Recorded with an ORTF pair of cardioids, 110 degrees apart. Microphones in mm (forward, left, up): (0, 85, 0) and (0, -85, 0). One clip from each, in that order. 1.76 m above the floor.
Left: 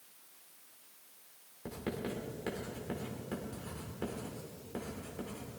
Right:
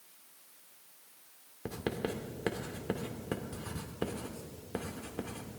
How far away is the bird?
No bird in this recording.